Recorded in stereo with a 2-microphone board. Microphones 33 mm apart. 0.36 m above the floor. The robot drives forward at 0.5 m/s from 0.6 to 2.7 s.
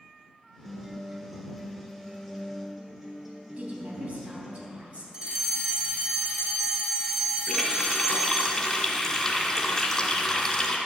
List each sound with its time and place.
0.7 s a guitar: 10° right (ahead or behind), 1.4 m; by 4.6 s 5° right (ahead or behind), 2.5 m
3.6 s a woman speaking: 50° right (ahead or behind), 3 m
5.1 s a fire alarm: 20° right (ahead or behind), 2 m
7.5 s a running tap: 15° left (ahead or behind), 2 m